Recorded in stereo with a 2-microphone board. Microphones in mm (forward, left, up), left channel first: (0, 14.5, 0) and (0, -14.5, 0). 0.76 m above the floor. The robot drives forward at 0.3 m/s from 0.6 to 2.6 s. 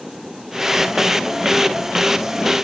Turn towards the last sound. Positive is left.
No sound to turn to.